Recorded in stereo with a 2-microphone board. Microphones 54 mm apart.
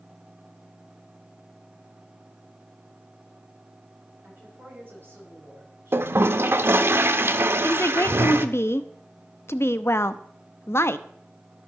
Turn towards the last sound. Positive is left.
turn(degrees=50)  # may be behind; listen again after turning